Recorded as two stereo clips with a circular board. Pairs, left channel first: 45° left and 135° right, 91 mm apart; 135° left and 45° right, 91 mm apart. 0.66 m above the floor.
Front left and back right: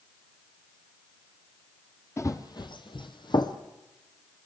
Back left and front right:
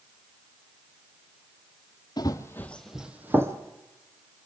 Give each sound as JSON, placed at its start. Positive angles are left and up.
{"t": 2.2, "sound": "running footsteps", "azimuth_deg": 100, "distance_m": 1.4}